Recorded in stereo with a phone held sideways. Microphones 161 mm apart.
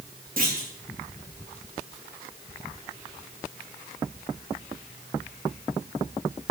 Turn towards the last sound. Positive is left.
turn(degrees=-60)  # may be behind; listen again after turning